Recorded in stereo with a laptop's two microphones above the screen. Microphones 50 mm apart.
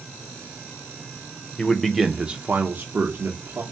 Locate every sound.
1.6 s a man speaking: 15° left (ahead or behind), 0.6 m; by 3.6 s 60° right (ahead or behind), 1.0 m